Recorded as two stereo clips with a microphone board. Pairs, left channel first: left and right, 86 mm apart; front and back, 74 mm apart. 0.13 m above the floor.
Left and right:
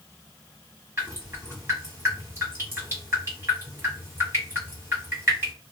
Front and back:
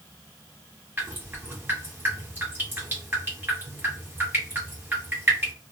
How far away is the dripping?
About 2.5 m.